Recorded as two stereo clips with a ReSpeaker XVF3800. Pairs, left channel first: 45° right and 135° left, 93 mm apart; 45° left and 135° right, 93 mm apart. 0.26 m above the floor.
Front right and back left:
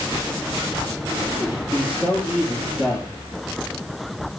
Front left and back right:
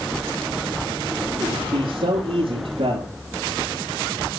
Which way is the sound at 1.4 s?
125° right.